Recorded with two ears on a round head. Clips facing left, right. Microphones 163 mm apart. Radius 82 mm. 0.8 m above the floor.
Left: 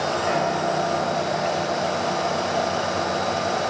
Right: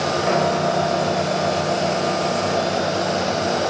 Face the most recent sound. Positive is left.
turn(degrees=-55)  # may be behind; listen again after turning